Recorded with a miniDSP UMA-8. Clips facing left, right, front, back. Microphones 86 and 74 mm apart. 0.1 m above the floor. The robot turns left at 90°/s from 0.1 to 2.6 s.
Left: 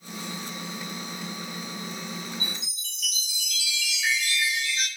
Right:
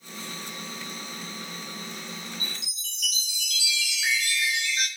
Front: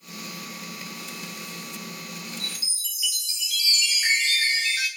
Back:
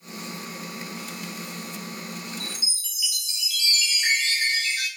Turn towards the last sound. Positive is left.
turn(degrees=-60)